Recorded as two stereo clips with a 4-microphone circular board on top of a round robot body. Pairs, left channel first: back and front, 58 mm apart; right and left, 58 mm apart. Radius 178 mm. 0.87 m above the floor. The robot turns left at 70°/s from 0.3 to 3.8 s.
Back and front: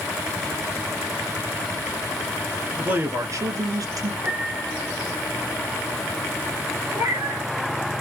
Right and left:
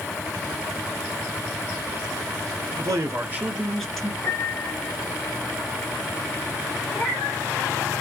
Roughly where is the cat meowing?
Ahead right.